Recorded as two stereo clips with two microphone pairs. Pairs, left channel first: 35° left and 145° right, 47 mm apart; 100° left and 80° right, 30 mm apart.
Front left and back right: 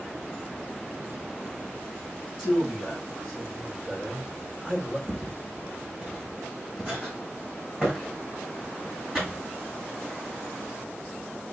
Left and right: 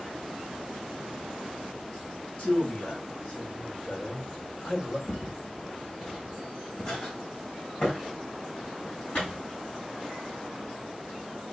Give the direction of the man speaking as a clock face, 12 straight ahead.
7 o'clock.